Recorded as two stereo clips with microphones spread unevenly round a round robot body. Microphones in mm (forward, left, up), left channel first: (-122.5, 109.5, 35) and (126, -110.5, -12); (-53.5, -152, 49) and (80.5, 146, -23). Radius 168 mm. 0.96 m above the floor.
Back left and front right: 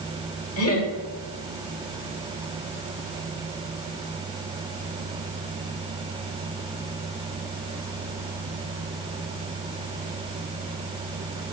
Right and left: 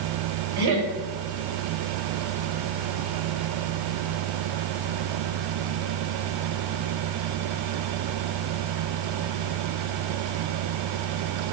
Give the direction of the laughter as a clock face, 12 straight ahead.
9 o'clock.